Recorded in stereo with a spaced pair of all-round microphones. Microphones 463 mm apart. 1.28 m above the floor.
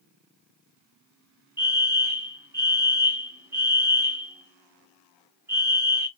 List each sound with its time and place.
1.6 s a fire alarm: 5° right (ahead or behind), 1.0 m